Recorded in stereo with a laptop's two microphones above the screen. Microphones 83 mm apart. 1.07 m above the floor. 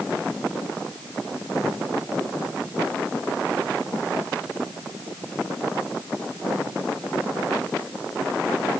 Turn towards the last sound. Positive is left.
No sound to turn to.